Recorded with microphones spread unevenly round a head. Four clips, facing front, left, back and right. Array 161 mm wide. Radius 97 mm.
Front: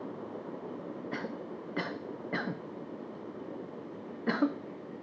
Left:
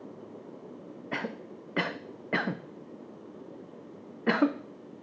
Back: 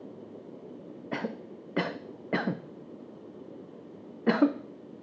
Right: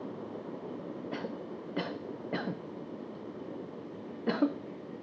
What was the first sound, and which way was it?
A cough, 105° left.